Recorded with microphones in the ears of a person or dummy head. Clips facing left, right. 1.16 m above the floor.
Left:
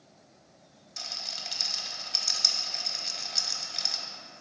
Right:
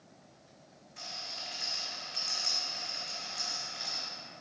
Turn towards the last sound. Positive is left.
turn(degrees=45)  # may be behind; listen again after turning